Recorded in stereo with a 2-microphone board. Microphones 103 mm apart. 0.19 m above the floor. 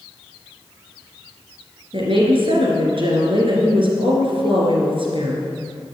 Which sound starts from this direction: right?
A woman speaking, at 1.9 s.